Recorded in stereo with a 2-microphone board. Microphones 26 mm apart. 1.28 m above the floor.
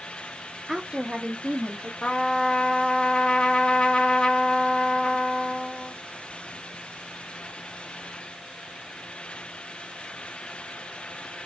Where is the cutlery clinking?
I don't hear cutlery clinking.